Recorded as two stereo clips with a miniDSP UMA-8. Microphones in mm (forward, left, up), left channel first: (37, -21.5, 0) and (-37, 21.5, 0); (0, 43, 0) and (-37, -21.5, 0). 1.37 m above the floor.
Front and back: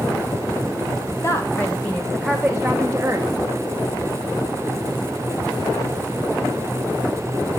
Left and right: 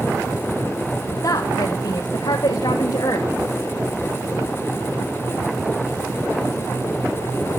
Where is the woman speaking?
25° left, 1.0 m; by 3.3 s 90° left, 1.1 m.